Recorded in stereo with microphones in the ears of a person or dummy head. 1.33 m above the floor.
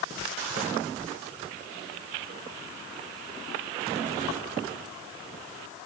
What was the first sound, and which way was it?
Only background noise.